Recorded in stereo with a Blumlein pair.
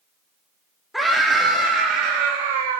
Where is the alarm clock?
I don't hear an alarm clock.